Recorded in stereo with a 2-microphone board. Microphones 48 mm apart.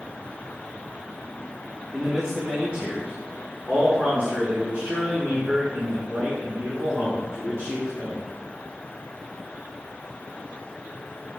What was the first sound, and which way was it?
A man speaking, 5° right (ahead or behind).